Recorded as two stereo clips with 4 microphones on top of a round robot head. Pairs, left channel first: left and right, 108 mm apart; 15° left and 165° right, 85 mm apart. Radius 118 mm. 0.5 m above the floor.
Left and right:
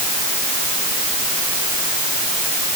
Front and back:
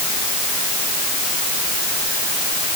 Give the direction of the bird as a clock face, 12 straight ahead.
I don't hear a bird.